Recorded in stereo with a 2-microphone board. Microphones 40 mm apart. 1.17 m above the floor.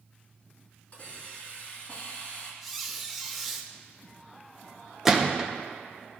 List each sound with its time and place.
0.9 s a hiss: 35° left (ahead or behind), 2.5 m
2.6 s a squeak: 5° left (ahead or behind), 1.0 m
5.0 s a gunshot: 15° right (ahead or behind), 0.8 m